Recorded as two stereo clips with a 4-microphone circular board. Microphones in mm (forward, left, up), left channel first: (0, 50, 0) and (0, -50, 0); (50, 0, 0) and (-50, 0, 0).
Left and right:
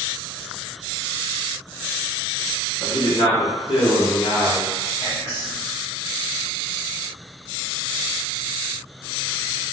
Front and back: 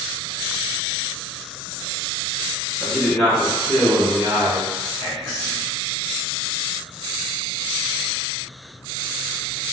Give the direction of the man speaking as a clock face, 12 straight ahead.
10 o'clock.